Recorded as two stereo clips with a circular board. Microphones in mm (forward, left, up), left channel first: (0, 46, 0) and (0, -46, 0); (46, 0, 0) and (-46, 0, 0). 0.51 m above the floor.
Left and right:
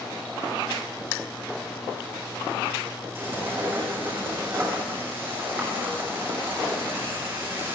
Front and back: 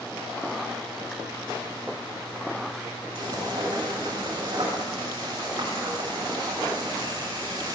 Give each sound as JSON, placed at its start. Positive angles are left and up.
{"t": 3.1, "sound": "frying", "azimuth_deg": -155, "distance_m": 7.5}